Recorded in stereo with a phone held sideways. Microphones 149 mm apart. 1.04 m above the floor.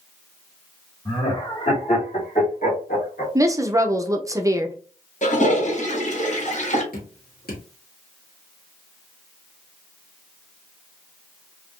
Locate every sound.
1.1 s laughter: 35° left (ahead or behind), 1.7 m; by 3.2 s 65° left (ahead or behind), 2.0 m
3.4 s a woman speaking: 20° right (ahead or behind), 0.5 m
5.2 s a toilet flushing: 50° left (ahead or behind), 1.0 m
6.9 s dripping: 75° left (ahead or behind), 1.9 m